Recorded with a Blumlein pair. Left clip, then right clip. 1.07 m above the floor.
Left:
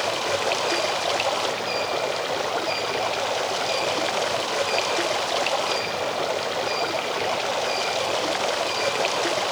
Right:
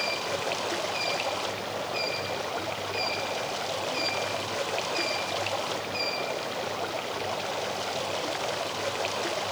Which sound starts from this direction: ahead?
Running water, at 0.0 s.